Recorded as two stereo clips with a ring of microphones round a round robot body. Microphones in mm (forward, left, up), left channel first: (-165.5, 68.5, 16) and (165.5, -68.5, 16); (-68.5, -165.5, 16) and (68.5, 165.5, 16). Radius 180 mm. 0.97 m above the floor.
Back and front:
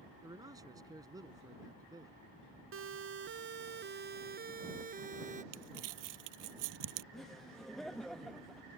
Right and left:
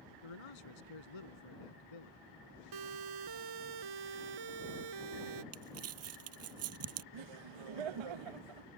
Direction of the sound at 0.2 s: 105° right.